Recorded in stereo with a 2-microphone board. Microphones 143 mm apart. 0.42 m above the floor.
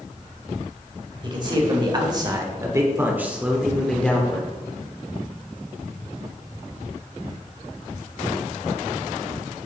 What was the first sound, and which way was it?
A man speaking, 35° right (ahead or behind).